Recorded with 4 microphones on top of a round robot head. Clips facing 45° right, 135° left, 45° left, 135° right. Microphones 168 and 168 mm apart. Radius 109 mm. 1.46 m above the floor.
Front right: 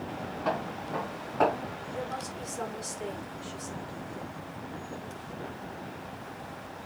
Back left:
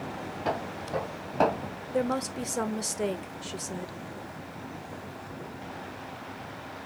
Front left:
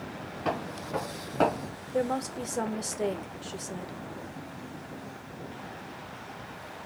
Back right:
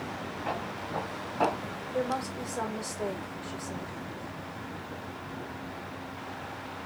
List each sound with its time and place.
0.5 s footsteps: 65° left, 3 m; by 1.7 s 80° left, 3 m
1.9 s a woman speaking: 110° left, 1.4 m